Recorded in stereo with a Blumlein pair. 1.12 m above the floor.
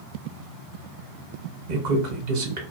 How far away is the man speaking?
About 1.1 m.